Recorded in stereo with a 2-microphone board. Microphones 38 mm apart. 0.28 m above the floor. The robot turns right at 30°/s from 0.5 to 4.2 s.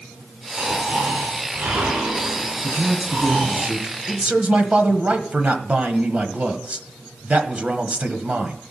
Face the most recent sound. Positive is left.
turn(degrees=-40)  # may be behind; listen again after turning